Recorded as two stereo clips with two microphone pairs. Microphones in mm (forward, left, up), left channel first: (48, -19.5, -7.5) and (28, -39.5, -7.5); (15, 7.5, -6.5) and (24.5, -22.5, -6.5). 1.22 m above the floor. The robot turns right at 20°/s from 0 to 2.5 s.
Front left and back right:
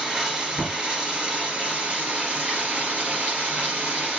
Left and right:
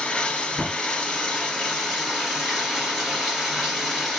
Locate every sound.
0.0 s running water: 150° left, 1.8 m; by 4.2 s 160° right, 1.8 m